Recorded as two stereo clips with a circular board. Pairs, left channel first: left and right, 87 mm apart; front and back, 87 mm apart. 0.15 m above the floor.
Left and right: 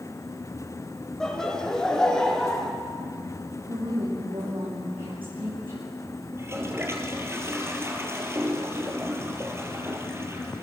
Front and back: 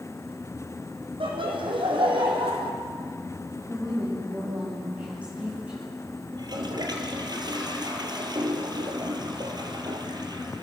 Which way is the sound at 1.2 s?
175° left.